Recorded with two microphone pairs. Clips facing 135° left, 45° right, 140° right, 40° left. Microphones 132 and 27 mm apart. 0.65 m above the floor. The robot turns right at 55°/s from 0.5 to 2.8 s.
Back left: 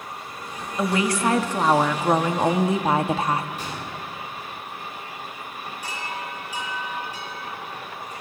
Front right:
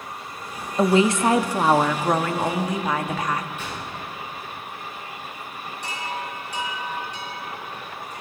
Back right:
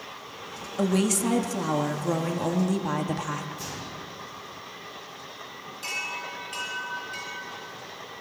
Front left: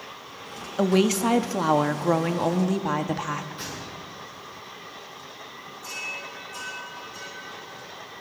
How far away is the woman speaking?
About 0.7 m.